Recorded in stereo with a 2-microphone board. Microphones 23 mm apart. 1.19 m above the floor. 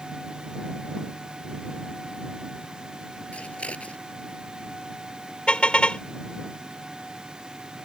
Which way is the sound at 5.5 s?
50° left (ahead or behind).